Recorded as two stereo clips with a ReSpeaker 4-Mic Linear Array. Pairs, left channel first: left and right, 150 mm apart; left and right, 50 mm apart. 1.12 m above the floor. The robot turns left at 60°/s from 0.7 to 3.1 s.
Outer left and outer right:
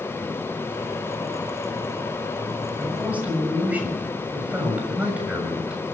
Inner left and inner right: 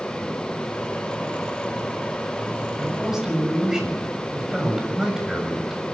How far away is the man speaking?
About 7 m.